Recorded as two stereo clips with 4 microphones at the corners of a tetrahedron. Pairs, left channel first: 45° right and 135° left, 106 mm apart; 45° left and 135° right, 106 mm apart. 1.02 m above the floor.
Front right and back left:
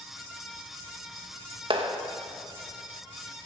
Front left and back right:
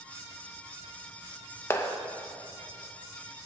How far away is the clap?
About 0.9 m.